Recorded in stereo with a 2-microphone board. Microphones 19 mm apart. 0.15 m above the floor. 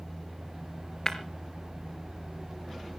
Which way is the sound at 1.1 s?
30° left (ahead or behind).